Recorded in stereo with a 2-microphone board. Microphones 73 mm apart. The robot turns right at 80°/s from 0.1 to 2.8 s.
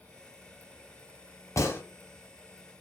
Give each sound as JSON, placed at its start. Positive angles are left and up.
{"t": 1.6, "sound": "a gunshot", "side_deg": 45, "distance_m": 0.9}